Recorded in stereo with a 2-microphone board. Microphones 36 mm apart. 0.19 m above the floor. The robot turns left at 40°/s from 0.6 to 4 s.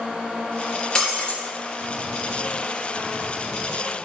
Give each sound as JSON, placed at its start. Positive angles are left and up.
{"t": 0.9, "sound": "breaking glass", "side_deg": 20, "distance_m": 2.5}